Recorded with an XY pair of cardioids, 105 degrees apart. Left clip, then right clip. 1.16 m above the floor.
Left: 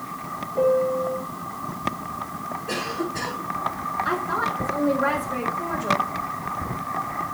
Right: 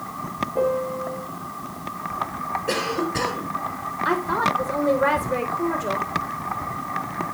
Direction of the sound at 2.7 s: 70° right.